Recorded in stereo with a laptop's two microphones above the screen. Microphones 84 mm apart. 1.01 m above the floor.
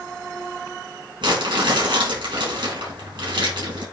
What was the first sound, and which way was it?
Crumpling, 70° right (ahead or behind).